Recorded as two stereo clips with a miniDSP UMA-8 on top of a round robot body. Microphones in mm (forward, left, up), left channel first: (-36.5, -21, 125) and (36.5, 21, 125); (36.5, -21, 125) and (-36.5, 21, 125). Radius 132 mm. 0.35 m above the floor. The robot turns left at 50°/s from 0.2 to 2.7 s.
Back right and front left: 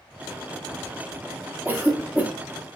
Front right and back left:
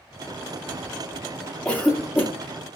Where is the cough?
25° left, 0.9 m; by 2.3 s 10° right, 0.9 m.